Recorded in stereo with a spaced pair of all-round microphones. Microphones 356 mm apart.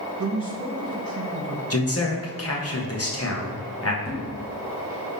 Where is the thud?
10° left (ahead or behind), 0.9 m.